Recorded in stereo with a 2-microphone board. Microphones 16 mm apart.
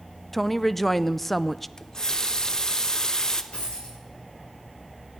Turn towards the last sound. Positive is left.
turn(degrees=70)  # may be behind; listen again after turning